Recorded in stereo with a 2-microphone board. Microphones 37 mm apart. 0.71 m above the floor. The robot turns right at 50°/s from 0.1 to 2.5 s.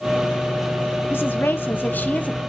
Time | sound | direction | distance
1.1 | a woman speaking | 80° left | 1.2 m